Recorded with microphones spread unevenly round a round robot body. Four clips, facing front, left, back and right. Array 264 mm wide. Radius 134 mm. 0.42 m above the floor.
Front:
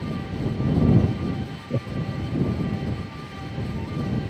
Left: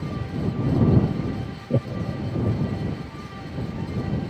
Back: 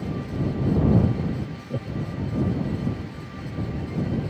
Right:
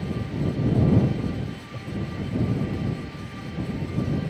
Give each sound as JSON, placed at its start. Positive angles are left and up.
{"t": 1.7, "sound": "laughter", "azimuth_deg": 80}